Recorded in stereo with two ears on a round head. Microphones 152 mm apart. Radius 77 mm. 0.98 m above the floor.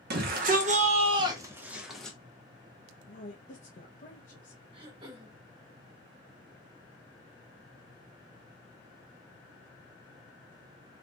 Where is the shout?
60° right (ahead or behind), 1.1 m; by 2.2 s 5° left (ahead or behind), 1.0 m.